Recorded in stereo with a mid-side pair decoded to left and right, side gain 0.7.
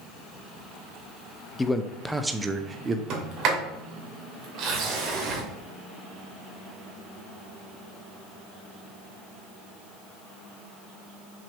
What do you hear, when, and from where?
1.6 s a man speaking: 15° left, 0.8 m; by 3.0 s 25° right, 1.1 m
3.1 s a sliding door: 45° right, 3 m